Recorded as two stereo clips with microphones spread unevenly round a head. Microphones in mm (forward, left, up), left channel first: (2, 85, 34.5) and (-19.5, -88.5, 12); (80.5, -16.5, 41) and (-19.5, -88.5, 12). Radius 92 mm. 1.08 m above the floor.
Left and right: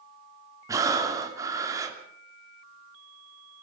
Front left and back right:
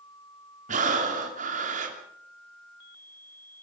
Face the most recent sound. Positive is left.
turn(degrees=-170)